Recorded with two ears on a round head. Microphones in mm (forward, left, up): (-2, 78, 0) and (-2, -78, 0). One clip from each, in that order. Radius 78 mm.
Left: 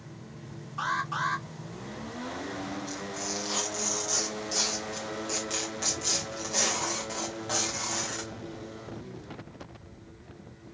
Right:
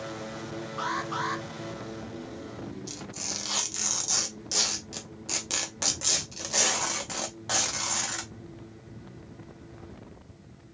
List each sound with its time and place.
0.8 s an alarm: centre (ahead or behind), 1.5 m
2.9 s tearing paper: 25° right (ahead or behind), 1.0 m